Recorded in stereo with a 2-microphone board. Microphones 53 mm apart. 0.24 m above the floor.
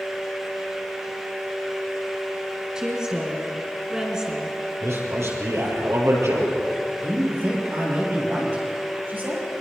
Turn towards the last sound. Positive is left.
turn(degrees=-40)  # may be behind; listen again after turning